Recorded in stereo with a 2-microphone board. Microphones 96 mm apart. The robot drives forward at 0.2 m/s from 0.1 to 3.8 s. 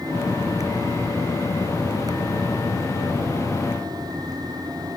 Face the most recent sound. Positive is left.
No sound to turn to.